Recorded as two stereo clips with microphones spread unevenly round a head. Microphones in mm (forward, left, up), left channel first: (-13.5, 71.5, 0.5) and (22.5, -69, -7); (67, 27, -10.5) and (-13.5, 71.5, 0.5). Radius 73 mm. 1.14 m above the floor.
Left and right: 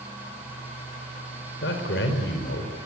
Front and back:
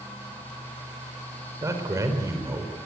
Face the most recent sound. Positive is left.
turn(degrees=95)